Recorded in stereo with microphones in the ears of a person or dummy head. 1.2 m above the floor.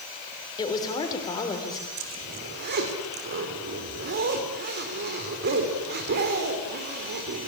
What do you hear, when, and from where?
0.6 s a woman speaking: 20° left (ahead or behind), 3.5 m
2.0 s a zipper: 55° right (ahead or behind), 3 m